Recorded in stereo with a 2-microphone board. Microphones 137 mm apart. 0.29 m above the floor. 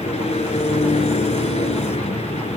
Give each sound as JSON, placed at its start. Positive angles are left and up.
{"t": 0.0, "sound": "an engine running", "side_deg": 55, "distance_m": 1.2}